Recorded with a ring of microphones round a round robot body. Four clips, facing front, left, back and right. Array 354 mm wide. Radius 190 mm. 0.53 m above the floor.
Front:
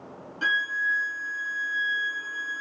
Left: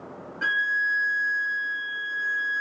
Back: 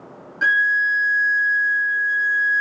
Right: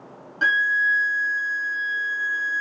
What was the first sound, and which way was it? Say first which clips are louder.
A violin: right 5 dB, back 8 dB; 95° right.